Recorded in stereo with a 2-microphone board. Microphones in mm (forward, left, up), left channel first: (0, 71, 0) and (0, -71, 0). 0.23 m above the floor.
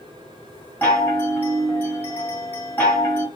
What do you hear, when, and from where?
0.8 s a chime: 15° left (ahead or behind), 1.6 m